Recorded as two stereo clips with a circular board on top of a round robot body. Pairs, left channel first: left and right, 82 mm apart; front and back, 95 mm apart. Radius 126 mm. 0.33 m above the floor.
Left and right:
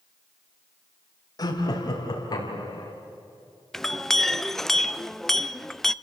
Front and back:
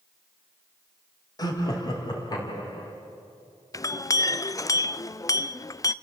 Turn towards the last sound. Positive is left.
turn(degrees=5)